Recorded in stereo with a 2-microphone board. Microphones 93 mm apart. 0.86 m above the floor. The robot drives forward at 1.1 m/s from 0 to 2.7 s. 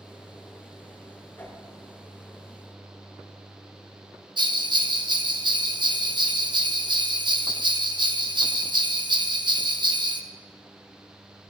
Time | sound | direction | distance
1.4 | a whoosh | 25° left (ahead or behind) | 4 m
4.4 | a bell | 60° right (ahead or behind) | 1.0 m